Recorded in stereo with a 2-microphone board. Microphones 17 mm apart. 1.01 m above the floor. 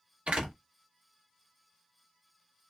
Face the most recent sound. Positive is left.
turn(degrees=-75)  # may be behind; listen again after turning